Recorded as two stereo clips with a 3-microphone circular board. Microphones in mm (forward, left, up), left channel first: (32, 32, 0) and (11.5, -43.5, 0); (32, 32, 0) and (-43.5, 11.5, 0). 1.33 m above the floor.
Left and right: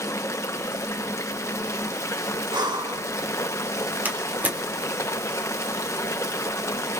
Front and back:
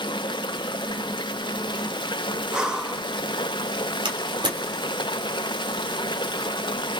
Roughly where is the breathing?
Right.